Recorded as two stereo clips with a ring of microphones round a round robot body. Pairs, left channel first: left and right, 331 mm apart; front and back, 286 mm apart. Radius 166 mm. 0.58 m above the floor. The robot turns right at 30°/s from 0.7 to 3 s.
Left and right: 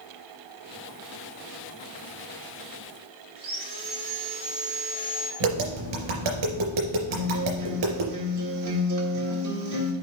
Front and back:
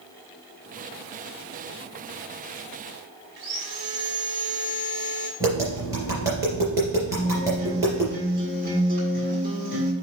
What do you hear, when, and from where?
3.4 s sawing: 155° right, 2 m
5.4 s tapping: 100° right, 3.5 m
7.1 s a guitar: 120° right, 1.5 m